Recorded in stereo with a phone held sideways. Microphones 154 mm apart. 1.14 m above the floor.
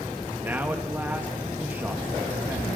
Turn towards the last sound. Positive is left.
turn(degrees=-15)  # may be behind; listen again after turning